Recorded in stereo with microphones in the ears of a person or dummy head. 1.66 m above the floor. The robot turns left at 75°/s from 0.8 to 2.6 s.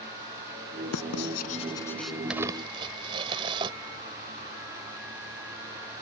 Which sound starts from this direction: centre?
Crumpling, at 2.3 s.